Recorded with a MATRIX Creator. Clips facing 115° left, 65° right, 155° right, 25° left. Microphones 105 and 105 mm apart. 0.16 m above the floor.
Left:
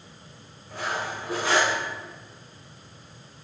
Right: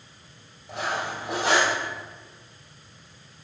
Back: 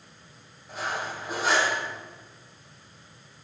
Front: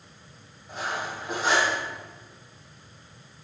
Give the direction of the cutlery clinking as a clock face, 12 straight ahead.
2 o'clock.